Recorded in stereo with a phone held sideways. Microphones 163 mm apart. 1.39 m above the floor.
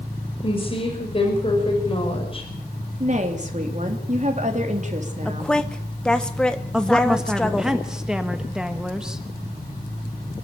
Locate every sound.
0.4 s a woman speaking: 35° left (ahead or behind), 5 m
3.0 s a woman speaking: 45° right (ahead or behind), 3 m
5.2 s a woman speaking: 5° left (ahead or behind), 1.5 m
6.7 s a woman speaking: 5° right (ahead or behind), 1.4 m